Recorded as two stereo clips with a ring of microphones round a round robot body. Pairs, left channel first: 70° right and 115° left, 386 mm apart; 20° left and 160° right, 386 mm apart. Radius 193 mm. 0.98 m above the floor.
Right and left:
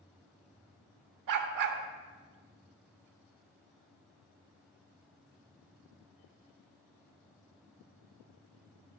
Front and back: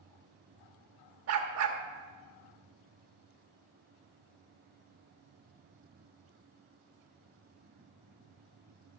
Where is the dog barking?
150° left, 1.2 m.